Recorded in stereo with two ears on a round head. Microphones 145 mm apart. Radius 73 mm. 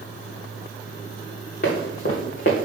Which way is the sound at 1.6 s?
50° left (ahead or behind).